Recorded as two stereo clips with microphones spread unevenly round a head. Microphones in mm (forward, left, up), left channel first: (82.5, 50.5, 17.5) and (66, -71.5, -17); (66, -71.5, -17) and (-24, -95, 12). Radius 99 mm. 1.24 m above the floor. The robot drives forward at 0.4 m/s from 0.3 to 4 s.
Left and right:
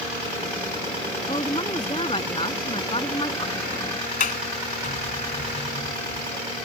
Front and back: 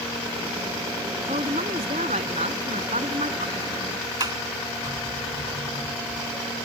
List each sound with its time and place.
1.3 s a woman speaking: 150° left
4.2 s a sliding door: 125° left